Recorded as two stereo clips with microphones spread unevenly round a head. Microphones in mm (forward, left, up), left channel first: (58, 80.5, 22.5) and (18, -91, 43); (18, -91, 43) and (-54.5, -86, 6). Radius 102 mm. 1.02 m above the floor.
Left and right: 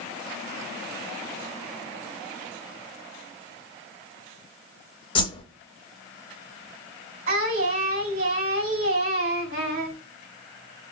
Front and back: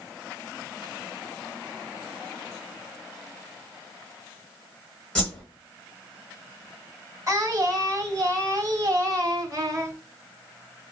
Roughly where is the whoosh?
Ahead.